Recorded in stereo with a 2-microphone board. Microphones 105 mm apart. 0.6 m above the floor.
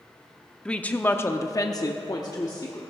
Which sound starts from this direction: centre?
A woman speaking, at 0.7 s.